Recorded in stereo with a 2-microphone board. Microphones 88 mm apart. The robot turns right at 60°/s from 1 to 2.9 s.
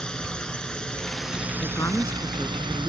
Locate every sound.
0.0 s a drone: 170° left; by 2.9 s 80° right
1.6 s a woman speaking: 125° left; by 2.9 s 160° right